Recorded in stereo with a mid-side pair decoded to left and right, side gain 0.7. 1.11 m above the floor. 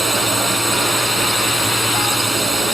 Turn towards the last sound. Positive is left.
turn(degrees=-5)